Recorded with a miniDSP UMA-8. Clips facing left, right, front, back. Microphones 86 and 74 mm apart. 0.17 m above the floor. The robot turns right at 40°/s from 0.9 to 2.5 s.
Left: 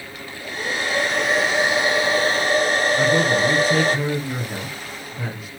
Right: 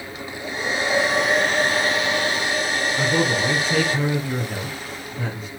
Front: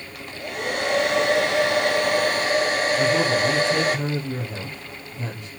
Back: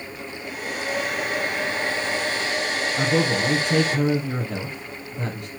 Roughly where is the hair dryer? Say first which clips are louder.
Right 2 dB, front 5 dB; ahead.